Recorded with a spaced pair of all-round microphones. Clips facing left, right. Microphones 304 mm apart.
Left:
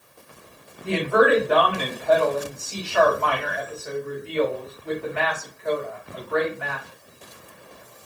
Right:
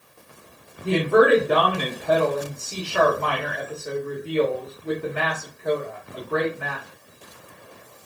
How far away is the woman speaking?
About 1.3 m.